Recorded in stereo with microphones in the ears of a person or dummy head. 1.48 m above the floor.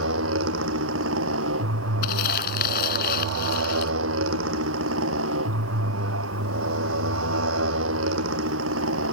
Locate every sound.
0.0 s a motorcycle: 80° right
2.0 s crumpling: 50° left (ahead or behind)